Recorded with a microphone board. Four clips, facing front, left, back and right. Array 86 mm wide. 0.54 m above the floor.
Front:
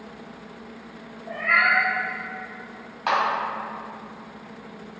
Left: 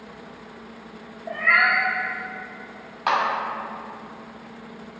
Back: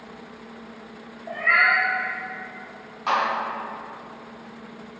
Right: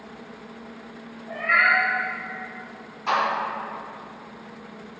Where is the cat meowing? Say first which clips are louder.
Left 1 dB, back 1 dB; 110° left, 0.9 m.